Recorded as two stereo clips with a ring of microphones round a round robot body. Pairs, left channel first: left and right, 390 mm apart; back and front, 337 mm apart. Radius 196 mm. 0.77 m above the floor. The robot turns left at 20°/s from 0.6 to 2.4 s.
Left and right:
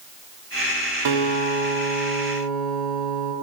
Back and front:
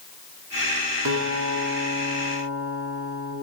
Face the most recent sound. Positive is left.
turn(degrees=-80)